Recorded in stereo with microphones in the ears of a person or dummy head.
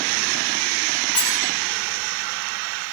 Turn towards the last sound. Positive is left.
turn(degrees=5)  # may be behind; listen again after turning